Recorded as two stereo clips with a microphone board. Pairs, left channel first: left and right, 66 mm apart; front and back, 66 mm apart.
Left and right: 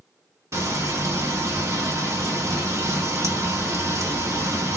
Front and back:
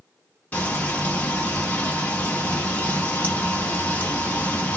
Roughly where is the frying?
Ahead right.